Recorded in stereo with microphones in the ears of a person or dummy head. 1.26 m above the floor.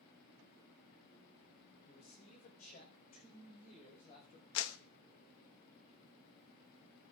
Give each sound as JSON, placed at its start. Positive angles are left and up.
{"t": 1.9, "sound": "a man speaking", "side_deg": 50, "distance_m": 4.5}
{"t": 4.5, "sound": "a clap", "side_deg": 75, "distance_m": 1.0}